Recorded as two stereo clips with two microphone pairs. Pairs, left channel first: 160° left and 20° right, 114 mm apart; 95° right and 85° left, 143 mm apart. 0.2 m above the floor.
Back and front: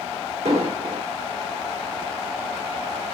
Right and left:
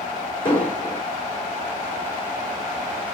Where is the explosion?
40° right, 2.5 m.